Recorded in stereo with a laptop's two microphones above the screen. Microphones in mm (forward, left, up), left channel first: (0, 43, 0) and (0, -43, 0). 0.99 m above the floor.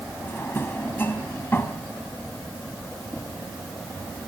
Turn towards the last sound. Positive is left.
turn(degrees=25)  # may be behind; listen again after turning